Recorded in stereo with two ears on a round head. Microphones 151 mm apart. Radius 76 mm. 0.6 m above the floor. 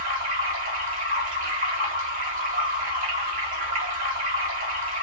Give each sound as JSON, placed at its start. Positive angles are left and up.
{"t": 0.0, "sound": "running water", "side_deg": -50, "distance_m": 1.1}